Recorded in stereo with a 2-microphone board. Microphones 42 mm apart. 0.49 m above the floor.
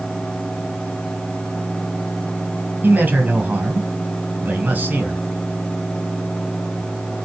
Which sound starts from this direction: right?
A man speaking, at 2.8 s.